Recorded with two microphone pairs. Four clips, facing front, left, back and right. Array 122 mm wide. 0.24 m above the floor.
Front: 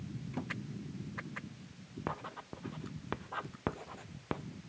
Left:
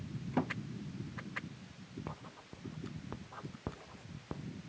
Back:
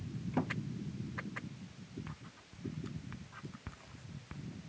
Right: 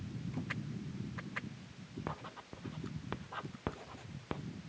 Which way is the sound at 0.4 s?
120° left.